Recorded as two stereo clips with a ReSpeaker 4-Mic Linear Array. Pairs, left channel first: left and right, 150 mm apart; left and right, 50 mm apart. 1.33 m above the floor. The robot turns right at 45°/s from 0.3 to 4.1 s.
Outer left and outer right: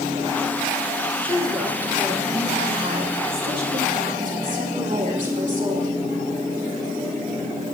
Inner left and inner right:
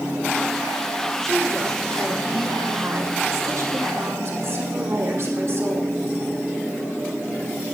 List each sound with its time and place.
1.2 s a woman speaking: 165° left, 3.5 m; by 6.0 s 60° right, 3.5 m